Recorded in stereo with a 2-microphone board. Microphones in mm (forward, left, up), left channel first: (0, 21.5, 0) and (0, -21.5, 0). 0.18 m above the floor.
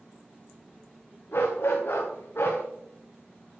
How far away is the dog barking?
About 4.5 m.